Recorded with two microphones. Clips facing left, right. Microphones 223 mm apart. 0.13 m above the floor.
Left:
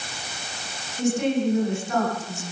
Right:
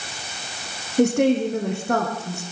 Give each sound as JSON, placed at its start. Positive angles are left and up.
{"t": 1.0, "sound": "a woman speaking", "side_deg": -65, "distance_m": 8.0}